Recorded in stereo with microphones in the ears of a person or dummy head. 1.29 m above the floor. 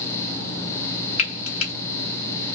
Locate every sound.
1.2 s frying: 40° left (ahead or behind), 1.1 m